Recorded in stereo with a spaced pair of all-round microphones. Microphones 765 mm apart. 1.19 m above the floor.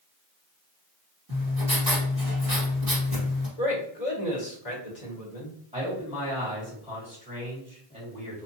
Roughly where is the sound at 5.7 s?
Centre.